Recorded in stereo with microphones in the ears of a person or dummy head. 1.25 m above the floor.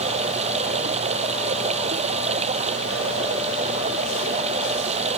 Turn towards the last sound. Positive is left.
turn(degrees=-35)  # may be behind; listen again after turning